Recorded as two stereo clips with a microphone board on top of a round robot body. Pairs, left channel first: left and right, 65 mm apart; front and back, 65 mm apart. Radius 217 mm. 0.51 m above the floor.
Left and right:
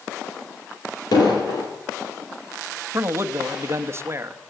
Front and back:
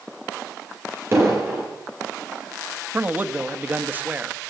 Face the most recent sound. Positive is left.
turn(degrees=-120)